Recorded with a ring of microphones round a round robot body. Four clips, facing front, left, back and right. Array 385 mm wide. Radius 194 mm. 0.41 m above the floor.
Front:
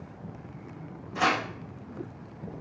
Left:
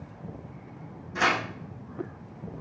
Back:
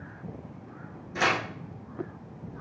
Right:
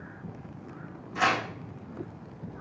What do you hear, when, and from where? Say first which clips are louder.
1.1 s tearing paper: even, front 1 dB; 140° left, 3.5 m